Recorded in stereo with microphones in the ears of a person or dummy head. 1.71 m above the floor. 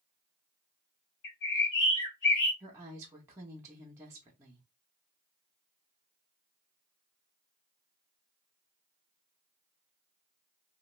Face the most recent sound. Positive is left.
turn(degrees=-15)  # may be behind; listen again after turning